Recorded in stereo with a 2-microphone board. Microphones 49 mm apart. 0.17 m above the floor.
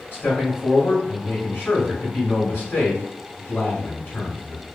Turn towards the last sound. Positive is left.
turn(degrees=45)  # may be behind; listen again after turning